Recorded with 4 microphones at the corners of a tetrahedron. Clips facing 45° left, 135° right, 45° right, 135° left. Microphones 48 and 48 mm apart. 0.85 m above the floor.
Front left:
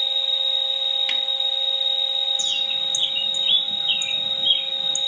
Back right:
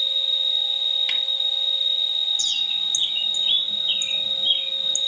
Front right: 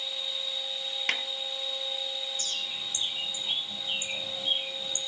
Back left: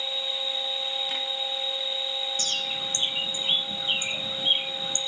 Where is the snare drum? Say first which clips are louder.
Even, front right 3 dB; 40° right, 3 m.